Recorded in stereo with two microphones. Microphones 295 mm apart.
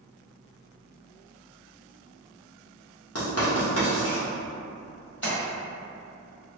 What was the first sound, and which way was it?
Writing, 55° left (ahead or behind).